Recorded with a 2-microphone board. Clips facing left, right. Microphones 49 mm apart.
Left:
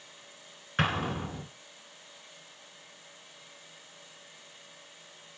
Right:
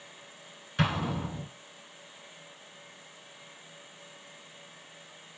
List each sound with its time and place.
0.8 s an explosion: 40° left (ahead or behind), 0.8 m